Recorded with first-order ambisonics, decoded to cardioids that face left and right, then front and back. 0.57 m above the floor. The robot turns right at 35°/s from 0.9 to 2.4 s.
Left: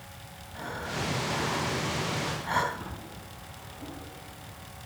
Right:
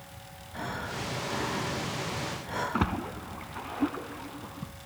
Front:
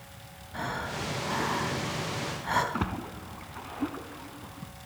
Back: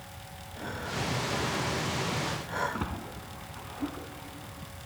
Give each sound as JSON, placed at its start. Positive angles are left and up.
{"t": 0.5, "sound": "breathing", "azimuth_deg": -15, "distance_m": 3.5}
{"t": 2.7, "sound": "a splash", "azimuth_deg": -70, "distance_m": 0.8}